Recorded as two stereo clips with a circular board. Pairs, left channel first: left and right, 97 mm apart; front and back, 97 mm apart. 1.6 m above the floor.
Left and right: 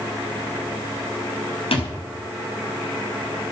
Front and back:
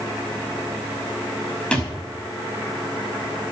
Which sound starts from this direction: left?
A thud, at 1.7 s.